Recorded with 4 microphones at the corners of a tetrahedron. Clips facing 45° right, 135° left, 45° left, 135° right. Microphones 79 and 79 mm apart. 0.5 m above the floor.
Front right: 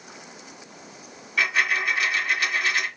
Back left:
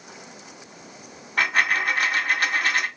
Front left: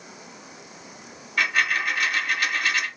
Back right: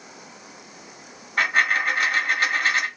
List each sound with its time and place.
1.4 s a dropped coin: 175° left, 1.5 m